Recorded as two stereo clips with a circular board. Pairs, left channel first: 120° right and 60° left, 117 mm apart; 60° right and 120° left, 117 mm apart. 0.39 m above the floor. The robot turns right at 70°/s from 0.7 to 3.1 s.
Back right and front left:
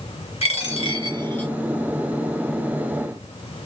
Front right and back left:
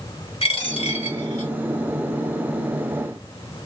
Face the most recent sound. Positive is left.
turn(degrees=75)